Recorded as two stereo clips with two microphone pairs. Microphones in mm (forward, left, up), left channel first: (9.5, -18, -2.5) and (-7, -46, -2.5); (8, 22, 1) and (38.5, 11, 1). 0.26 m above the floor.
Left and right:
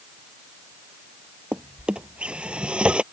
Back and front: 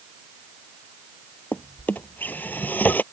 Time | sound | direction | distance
1.5 | a drawer | 175° right | ?